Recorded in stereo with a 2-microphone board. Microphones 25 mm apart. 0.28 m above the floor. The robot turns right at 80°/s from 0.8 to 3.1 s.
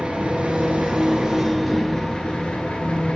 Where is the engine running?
65° right, 1.1 m; by 3.2 s 120° left, 1.1 m.